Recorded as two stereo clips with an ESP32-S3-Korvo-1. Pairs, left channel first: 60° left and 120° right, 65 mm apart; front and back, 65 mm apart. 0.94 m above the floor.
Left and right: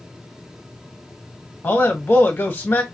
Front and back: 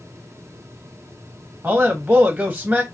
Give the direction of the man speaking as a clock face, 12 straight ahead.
8 o'clock.